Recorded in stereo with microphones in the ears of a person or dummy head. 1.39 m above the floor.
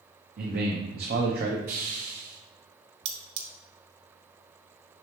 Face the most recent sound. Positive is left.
turn(degrees=-70)  # may be behind; listen again after turning